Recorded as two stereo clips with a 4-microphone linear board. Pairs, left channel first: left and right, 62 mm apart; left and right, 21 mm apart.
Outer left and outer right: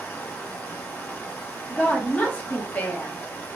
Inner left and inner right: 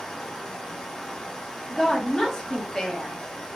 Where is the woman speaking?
30° left (ahead or behind), 0.8 m.